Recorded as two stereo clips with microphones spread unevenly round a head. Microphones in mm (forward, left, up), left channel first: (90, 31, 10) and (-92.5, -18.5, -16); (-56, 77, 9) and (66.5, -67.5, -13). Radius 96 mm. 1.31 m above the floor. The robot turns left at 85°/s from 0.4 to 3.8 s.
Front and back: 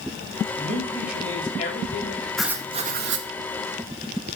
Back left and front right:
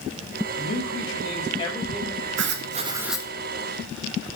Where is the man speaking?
155° left, 7.5 m; by 2.3 s 10° left, 7.5 m.